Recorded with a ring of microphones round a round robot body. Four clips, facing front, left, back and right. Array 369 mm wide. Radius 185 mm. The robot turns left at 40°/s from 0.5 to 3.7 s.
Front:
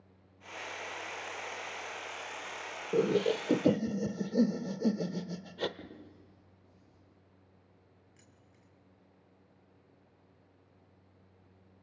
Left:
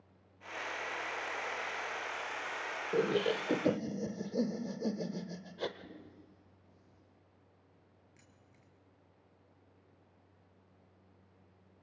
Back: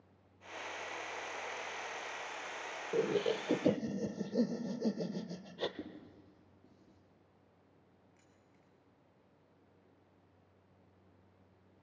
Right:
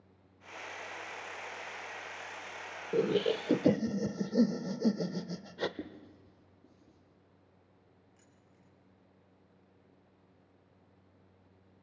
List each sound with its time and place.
2.9 s laughter: 25° right, 0.9 m; by 5.7 s 55° right, 0.9 m
5.8 s writing: 115° right, 9 m
8.2 s keys jangling: 50° left, 6 m